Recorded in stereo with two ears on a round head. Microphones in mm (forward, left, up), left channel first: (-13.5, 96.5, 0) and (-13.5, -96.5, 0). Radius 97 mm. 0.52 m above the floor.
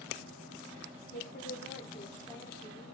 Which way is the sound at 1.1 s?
40° left (ahead or behind).